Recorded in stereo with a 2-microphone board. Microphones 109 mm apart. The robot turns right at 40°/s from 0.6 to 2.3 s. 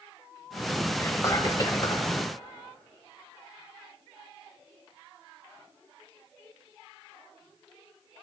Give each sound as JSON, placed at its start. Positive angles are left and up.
{"t": 1.0, "sound": "whispering", "azimuth_deg": 30, "distance_m": 1.4}